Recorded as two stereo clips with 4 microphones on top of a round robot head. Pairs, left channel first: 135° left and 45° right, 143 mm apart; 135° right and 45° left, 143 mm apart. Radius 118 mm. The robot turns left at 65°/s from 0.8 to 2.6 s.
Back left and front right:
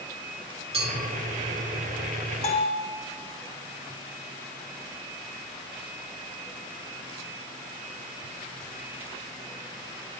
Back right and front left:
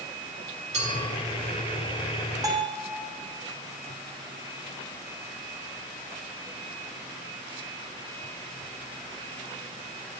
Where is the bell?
105° left, 0.8 m; by 2.8 s 95° left, 0.8 m.